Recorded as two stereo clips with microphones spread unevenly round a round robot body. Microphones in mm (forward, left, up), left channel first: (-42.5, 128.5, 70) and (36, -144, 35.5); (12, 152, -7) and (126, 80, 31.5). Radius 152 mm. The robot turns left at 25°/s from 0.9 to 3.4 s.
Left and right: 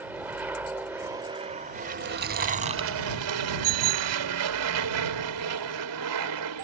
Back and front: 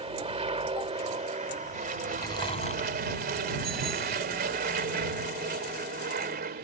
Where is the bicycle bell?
80° right.